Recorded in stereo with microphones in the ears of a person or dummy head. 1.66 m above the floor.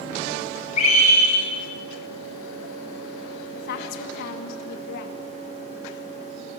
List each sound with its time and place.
0.8 s a scream: 40° left (ahead or behind), 7 m
3.5 s a woman speaking: 60° left (ahead or behind), 2 m